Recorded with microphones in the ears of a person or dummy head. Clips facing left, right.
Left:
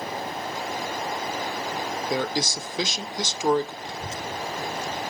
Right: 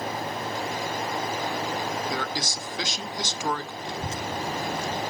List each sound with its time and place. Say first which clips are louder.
2.1 s a man speaking: left 4 dB; 20° left (ahead or behind), 0.6 m
3.8 s a child speaking: right 2 dB; 60° right (ahead or behind), 0.5 m